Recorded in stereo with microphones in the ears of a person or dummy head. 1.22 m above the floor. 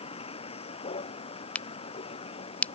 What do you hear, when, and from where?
0.0 s a vehicle: 30° left (ahead or behind)
1.6 s a crack: 5° left (ahead or behind)